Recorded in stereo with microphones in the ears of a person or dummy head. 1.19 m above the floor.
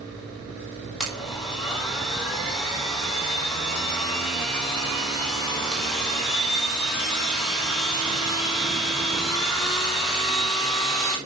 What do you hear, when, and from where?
1.0 s a blender: centre (ahead or behind), 4 m